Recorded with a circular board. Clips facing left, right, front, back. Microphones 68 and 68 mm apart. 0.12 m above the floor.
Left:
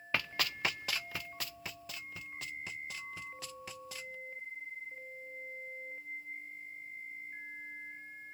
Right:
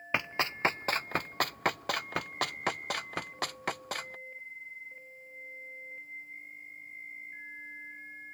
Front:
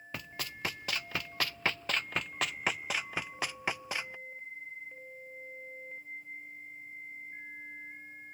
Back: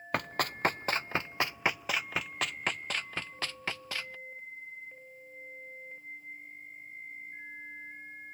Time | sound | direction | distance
0.1 | running footsteps | 155° right | ?